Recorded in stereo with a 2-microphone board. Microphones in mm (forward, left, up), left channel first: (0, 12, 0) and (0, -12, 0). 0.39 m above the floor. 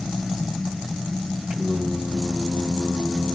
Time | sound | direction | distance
1.5 | singing | 50° right (ahead or behind) | 2 m